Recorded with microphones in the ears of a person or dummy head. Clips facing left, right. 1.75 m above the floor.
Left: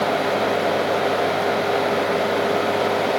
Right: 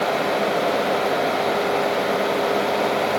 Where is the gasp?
I don't hear a gasp.